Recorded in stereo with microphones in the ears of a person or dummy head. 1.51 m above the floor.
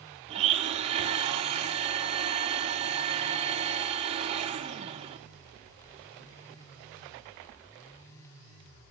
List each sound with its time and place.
0.3 s a blender: 35° right (ahead or behind), 0.8 m